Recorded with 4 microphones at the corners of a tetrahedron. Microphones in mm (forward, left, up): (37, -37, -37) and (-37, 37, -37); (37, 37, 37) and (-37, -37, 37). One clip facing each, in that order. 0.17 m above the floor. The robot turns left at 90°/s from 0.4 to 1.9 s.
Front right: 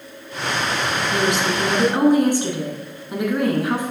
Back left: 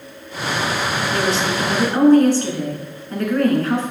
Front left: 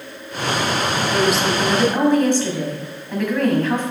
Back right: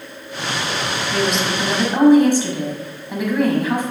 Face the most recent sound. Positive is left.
turn(degrees=-80)